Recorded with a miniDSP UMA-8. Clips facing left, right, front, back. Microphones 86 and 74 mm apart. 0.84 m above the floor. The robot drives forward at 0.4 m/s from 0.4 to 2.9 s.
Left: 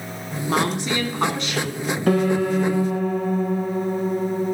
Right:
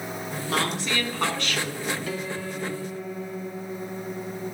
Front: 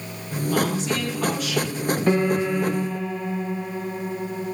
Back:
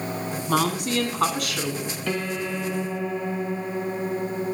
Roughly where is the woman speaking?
Behind.